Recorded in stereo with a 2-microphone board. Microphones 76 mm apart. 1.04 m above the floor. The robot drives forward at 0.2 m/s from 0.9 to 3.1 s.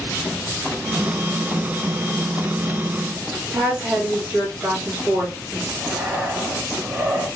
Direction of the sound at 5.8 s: 20° right (ahead or behind).